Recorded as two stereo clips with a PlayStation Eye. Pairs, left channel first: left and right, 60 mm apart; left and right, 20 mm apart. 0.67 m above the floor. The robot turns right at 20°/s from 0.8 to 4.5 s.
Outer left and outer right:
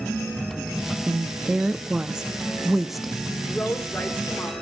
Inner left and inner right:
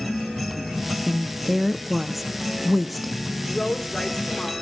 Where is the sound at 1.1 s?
45° right, 0.6 m; by 3.2 s straight ahead, 0.6 m.